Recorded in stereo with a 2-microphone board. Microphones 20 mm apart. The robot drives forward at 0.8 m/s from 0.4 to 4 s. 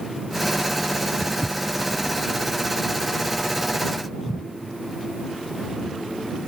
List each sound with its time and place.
1.2 s footsteps: 25° right (ahead or behind), 0.5 m; by 6.0 s 45° right (ahead or behind), 5 m